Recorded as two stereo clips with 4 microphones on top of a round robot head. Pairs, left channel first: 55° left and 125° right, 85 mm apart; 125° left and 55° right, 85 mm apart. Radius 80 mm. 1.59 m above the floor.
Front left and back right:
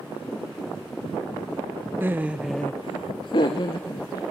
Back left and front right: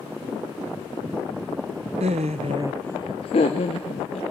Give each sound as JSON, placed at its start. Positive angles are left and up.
{"t": 2.0, "sound": "laughter", "azimuth_deg": -55, "distance_m": 1.0}